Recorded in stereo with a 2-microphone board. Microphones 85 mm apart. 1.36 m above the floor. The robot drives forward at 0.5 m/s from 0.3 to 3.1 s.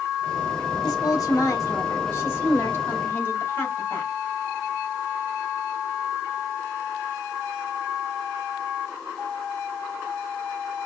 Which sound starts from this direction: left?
A woman speaking, at 0.8 s.